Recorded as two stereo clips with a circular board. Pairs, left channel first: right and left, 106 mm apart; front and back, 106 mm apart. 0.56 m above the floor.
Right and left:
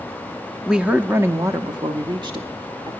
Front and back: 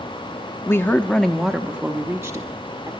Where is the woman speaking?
10° left, 0.7 m; by 2.9 s 125° left, 1.3 m.